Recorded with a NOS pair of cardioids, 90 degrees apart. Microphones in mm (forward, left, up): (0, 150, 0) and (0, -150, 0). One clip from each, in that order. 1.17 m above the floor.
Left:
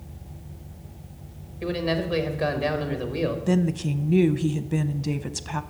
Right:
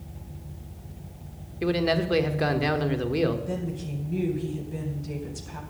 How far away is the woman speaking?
About 0.6 m.